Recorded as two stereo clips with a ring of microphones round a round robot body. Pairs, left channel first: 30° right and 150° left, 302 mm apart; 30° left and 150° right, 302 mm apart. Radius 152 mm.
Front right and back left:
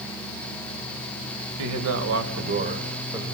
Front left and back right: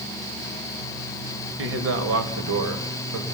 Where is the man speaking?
170° left, 2.5 m; by 3.2 s 130° right, 2 m.